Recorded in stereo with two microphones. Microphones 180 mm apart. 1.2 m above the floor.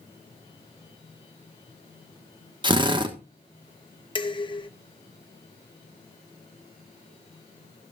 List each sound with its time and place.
2.6 s a drill: 25° right (ahead or behind), 1.4 m
4.2 s dishes clattering: 25° left (ahead or behind), 0.8 m